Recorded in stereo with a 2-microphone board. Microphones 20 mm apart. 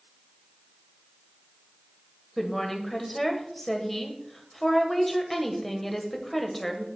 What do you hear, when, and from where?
2.4 s a woman speaking: centre (ahead or behind), 1.9 m